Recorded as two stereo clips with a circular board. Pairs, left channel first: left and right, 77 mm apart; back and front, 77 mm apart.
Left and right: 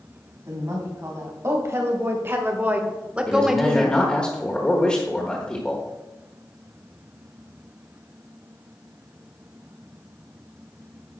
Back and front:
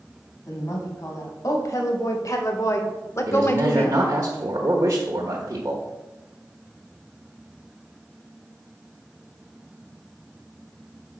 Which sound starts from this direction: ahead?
A man speaking, at 3.3 s.